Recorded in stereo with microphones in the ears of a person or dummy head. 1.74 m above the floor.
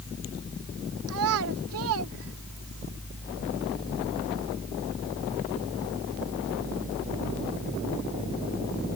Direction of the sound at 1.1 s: 70° right (ahead or behind).